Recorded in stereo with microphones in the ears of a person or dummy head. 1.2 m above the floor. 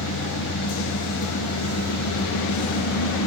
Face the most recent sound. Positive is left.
turn(degrees=80)